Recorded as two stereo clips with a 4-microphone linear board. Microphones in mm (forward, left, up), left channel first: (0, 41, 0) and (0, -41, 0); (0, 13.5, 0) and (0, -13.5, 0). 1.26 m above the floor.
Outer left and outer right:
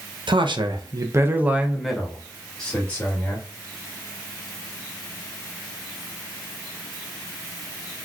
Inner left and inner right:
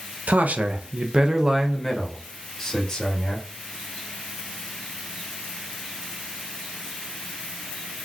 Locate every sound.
0.3 s a man speaking: 75° right (ahead or behind), 0.7 m; by 3.5 s 20° left (ahead or behind), 1.7 m